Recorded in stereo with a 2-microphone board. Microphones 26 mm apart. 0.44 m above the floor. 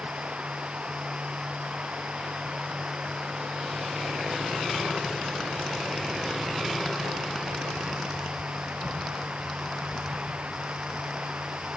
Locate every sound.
0.0 s running water: 55° right (ahead or behind)